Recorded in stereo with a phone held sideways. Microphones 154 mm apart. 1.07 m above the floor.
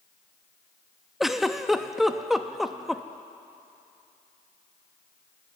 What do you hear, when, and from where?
1.2 s a giggle: centre (ahead or behind), 0.7 m